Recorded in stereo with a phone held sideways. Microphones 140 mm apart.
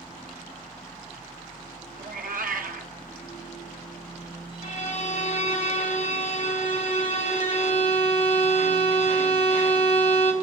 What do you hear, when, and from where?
0.0 s a machine running: centre (ahead or behind), 2.5 m
2.0 s a cat meowing: 70° right (ahead or behind), 0.7 m
4.6 s a violin: 50° left (ahead or behind), 1.3 m